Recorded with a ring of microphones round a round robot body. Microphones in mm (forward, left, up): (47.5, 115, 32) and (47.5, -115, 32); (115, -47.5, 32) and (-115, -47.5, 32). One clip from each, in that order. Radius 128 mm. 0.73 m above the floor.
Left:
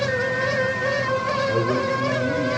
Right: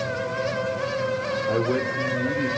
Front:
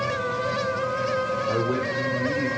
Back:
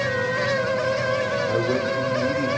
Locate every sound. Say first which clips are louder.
1.5 s a man speaking: left 2 dB, back 2 dB; 95° right, 2.5 m